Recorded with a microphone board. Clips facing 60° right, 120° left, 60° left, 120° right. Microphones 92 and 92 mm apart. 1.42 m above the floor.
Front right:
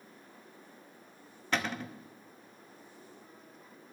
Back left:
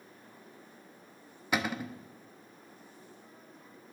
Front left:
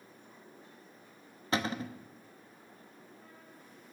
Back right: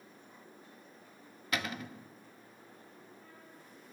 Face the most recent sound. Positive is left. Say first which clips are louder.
# back left 2 dB, front left 4 dB
turn(degrees=50)